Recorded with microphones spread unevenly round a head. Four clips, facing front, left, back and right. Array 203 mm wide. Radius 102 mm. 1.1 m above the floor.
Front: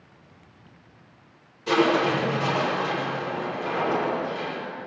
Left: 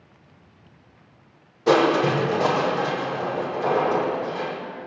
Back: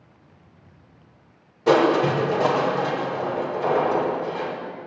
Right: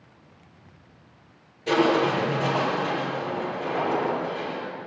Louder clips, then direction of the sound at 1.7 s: Left 3 dB, back 4 dB; 150° left.